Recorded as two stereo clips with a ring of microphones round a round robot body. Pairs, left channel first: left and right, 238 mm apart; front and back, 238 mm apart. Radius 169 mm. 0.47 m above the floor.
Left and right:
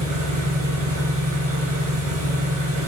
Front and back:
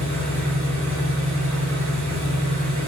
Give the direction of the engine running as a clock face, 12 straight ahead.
4 o'clock.